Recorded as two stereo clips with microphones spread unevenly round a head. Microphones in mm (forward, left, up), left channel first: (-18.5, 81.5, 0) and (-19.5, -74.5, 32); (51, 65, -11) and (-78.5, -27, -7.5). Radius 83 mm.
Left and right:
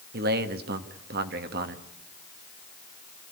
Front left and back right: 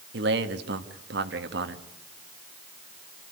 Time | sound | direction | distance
0.1 | a man speaking | 115° right | 1.5 m